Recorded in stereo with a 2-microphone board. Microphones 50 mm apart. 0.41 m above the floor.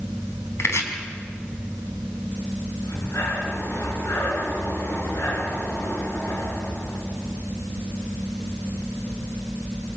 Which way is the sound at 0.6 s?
60° left (ahead or behind).